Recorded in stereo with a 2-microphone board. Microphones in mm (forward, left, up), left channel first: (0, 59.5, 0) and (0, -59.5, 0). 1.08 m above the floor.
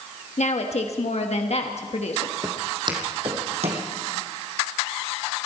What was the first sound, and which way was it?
A woman speaking, 65° left (ahead or behind).